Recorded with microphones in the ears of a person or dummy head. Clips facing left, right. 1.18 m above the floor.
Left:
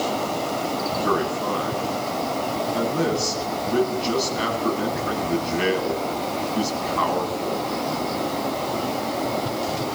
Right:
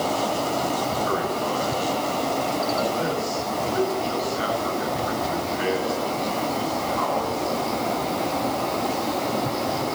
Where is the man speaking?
60° left (ahead or behind), 9.5 m.